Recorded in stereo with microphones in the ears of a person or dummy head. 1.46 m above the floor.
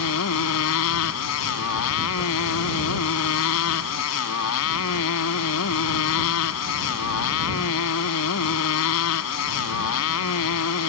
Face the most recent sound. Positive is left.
turn(degrees=75)  # may be behind; listen again after turning